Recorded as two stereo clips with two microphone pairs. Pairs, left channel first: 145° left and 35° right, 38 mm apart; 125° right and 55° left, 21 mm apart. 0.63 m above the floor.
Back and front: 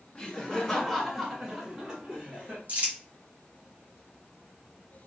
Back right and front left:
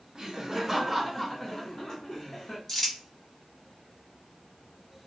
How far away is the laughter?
About 1.0 m.